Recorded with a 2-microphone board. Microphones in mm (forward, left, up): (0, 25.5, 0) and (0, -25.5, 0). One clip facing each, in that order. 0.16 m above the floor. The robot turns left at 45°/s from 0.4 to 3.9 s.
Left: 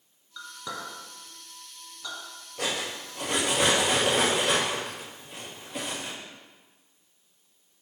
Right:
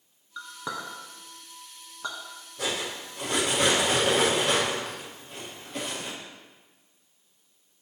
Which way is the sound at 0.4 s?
20° right (ahead or behind).